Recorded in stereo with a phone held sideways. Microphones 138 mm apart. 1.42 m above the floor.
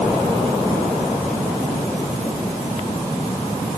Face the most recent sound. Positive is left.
No sound to turn to.